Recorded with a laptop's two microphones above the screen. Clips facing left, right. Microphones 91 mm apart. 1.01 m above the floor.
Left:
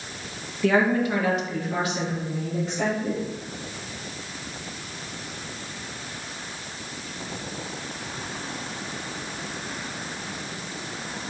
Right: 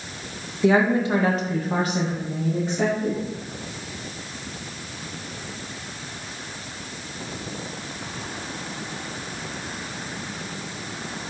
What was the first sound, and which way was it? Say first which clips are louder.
A woman speaking: right 2 dB; 15° right (ahead or behind).